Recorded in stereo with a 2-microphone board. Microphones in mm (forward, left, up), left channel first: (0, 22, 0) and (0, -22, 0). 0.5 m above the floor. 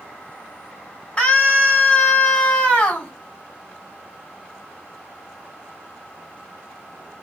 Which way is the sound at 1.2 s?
25° left (ahead or behind).